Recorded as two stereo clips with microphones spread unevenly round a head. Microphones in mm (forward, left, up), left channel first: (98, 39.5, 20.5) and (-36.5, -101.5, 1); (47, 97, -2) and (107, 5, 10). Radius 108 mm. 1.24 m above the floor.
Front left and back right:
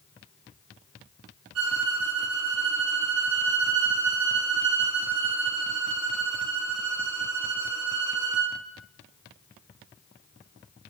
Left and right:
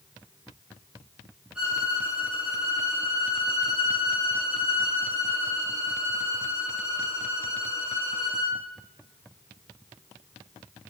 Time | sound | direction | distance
1.6 | a violin | 140° right | 2.5 m